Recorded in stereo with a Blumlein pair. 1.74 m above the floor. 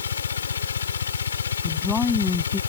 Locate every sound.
0.0 s a machine running: 70° left
1.6 s a woman speaking: 15° left